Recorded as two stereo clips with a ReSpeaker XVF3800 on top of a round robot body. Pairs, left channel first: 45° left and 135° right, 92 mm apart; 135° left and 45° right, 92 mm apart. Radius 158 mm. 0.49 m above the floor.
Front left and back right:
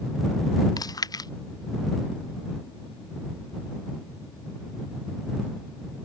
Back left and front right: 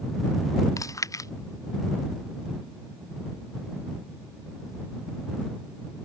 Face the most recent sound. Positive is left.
turn(degrees=85)